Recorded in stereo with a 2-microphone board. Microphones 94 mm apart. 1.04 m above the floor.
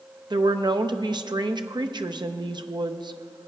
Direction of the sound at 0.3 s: 50° right (ahead or behind).